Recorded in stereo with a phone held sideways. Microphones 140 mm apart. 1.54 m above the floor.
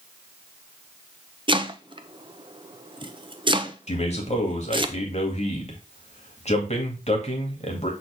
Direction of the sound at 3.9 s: 55° left (ahead or behind).